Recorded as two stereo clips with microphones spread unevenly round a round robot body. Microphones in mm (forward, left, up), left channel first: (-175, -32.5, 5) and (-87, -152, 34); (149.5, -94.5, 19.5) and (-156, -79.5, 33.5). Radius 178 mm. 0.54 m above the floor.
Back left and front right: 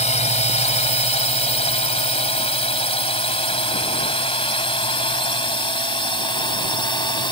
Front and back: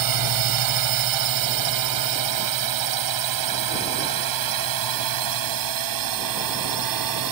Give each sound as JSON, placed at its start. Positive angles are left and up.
{"t": 0.0, "sound": "a drone", "azimuth_deg": 165}